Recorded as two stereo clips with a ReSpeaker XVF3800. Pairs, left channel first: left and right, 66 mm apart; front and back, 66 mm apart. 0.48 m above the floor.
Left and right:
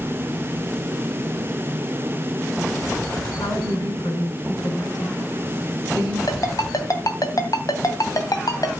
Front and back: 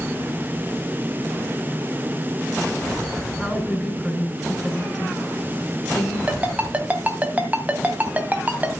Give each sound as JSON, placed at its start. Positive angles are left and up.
{"t": 3.4, "sound": "a woman speaking", "azimuth_deg": 95, "distance_m": 4.5}
{"t": 6.3, "sound": "a ringtone", "azimuth_deg": 115, "distance_m": 2.5}